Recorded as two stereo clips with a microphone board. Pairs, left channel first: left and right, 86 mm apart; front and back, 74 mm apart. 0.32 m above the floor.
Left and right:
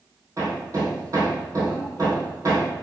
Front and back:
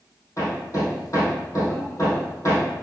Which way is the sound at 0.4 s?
45° right.